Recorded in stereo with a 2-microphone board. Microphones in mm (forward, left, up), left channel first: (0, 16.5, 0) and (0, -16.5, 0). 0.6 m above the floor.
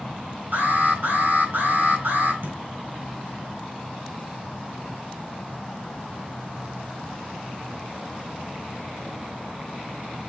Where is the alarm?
70° right (ahead or behind), 5 m.